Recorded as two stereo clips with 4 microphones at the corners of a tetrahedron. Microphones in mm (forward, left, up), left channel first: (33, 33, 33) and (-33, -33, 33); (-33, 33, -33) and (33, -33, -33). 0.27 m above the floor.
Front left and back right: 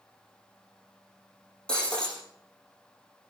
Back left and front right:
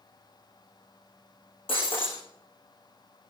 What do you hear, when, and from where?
1.7 s breaking glass: 125° left, 8.5 m